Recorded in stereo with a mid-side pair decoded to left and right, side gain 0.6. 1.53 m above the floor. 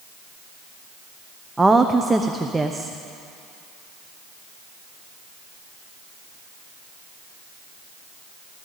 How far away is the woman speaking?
About 0.9 m.